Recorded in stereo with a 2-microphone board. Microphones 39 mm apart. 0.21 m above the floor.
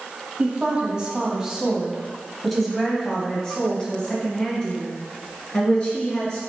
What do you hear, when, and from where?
0.4 s a woman speaking: 25° right (ahead or behind), 1.8 m; by 6.4 s 40° left (ahead or behind), 2.5 m